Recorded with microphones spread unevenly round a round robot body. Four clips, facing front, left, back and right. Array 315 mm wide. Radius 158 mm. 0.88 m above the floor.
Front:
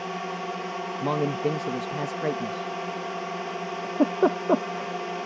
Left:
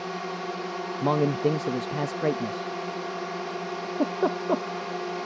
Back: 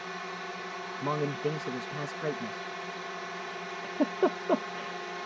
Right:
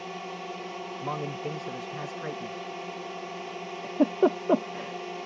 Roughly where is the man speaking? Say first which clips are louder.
Left 11 dB, front 5 dB; ahead left.